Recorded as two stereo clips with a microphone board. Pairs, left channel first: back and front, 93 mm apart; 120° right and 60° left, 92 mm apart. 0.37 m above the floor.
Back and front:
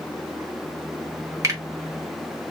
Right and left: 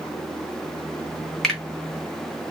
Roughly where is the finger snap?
Ahead right.